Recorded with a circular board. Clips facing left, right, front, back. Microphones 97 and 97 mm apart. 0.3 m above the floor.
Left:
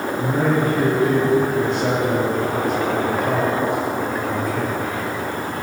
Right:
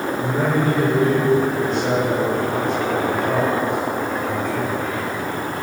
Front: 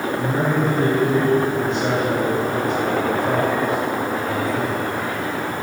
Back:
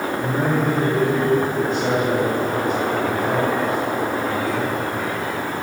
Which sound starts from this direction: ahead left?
A man speaking, at 0.2 s.